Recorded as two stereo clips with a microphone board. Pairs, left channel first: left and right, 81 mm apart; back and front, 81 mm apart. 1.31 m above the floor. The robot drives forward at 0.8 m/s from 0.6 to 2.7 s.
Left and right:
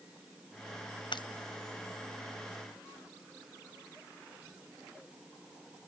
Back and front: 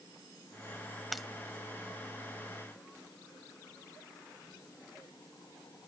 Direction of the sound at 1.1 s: 90° left.